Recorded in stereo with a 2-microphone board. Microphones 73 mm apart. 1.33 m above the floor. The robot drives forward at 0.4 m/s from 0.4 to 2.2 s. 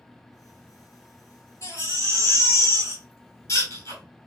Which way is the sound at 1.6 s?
45° left (ahead or behind).